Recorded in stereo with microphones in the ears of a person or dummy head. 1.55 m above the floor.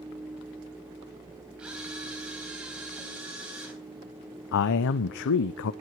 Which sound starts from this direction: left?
A man speaking, at 4.5 s.